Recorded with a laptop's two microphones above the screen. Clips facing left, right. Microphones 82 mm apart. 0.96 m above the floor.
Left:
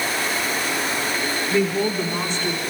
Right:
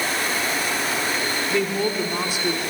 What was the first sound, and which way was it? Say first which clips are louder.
A woman speaking: left 3 dB; 10° left (ahead or behind).